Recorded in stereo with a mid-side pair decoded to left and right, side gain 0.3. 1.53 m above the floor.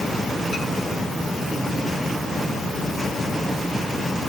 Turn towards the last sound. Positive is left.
No sound to turn to.